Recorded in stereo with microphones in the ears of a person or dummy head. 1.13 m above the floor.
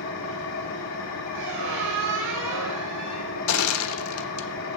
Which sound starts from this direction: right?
A squeak, at 1.3 s.